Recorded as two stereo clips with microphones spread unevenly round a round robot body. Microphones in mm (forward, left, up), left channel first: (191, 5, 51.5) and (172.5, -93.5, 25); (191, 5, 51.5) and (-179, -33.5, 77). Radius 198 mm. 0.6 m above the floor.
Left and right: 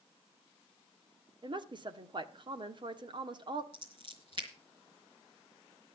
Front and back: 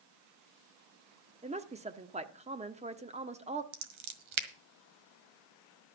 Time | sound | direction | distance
1.4 | a woman speaking | 100° right | 1.2 m
3.7 | scissors | 170° right | 1.8 m